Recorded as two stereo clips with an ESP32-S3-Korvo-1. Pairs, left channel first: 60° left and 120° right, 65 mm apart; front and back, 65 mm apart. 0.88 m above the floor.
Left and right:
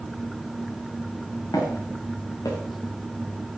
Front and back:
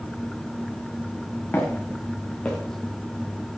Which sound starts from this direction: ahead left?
Footsteps, at 1.5 s.